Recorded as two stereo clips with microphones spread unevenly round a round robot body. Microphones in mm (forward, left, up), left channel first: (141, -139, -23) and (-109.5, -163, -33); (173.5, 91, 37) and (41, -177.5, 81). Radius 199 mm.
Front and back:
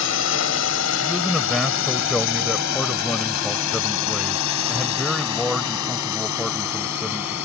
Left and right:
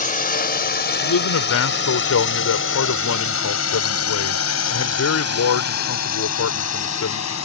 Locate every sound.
0.0 s a drone: 5° left; by 7.5 s 40° left
1.0 s a man speaking: 95° left